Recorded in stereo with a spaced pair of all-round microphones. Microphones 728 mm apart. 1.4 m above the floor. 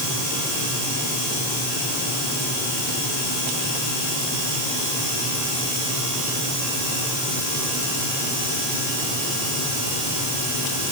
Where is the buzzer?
No buzzer in this recording.